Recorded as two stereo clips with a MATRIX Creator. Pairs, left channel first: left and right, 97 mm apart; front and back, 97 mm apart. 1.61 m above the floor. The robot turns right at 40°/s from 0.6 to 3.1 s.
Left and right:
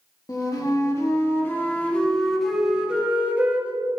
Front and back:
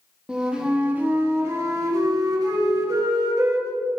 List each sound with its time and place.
0.3 s a flute: 105° left, 1.2 m; by 3.7 s 155° right, 1.2 m